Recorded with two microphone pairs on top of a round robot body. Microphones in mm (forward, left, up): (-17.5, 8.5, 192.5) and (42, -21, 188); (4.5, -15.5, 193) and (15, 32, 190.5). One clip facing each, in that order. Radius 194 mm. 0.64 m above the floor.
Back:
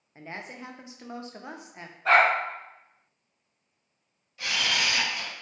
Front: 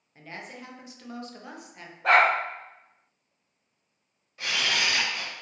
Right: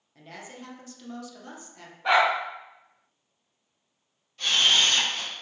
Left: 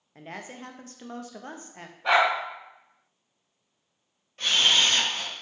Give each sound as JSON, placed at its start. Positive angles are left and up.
{"t": 0.1, "sound": "a woman speaking", "azimuth_deg": 95, "distance_m": 0.5}
{"t": 2.0, "sound": "a dog barking", "azimuth_deg": -15, "distance_m": 1.1}
{"t": 4.4, "sound": "a camera shutter", "azimuth_deg": 25, "distance_m": 1.3}